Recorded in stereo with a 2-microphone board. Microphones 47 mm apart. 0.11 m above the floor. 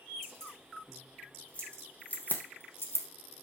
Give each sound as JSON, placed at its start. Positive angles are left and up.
{"t": 0.2, "sound": "keys jangling", "side_deg": 10, "distance_m": 5.0}